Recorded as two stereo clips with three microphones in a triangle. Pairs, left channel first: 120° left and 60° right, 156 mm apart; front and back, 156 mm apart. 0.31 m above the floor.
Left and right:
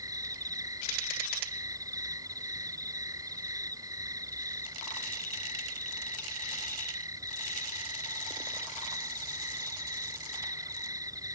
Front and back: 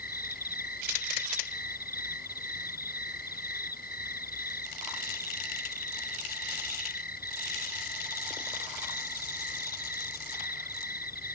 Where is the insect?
5° left.